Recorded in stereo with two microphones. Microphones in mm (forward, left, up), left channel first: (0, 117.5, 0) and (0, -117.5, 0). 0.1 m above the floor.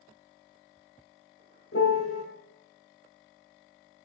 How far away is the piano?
About 3 m.